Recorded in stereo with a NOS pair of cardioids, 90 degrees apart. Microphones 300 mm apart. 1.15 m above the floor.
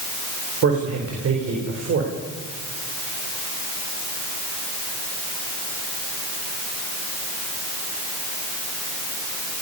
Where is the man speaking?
50° right, 4 m.